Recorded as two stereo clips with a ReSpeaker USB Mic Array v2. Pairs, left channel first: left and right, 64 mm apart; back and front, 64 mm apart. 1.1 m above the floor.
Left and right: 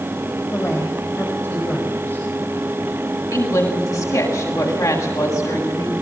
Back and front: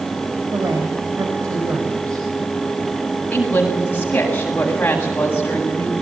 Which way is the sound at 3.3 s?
115° left.